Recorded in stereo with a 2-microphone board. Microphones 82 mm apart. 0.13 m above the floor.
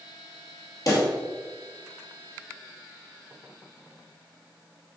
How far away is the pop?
About 2.5 m.